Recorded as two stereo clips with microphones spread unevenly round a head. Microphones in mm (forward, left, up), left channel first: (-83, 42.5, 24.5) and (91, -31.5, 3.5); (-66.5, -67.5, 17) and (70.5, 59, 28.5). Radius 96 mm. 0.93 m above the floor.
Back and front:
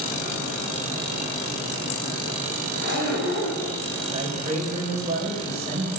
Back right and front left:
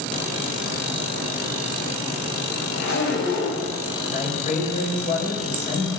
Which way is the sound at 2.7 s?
Straight behind.